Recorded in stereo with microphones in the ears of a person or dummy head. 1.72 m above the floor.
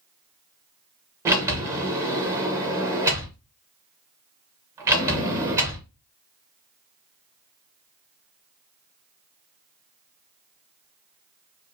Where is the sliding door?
20° right (ahead or behind), 1.0 m.